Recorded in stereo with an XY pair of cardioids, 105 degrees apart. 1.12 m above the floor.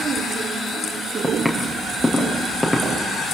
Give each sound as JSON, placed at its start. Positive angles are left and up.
{"t": 1.2, "sound": "footsteps", "azimuth_deg": 0, "distance_m": 5.5}